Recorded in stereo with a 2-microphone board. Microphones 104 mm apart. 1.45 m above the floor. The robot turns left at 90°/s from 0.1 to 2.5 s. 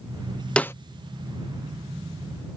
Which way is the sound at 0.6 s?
10° left (ahead or behind).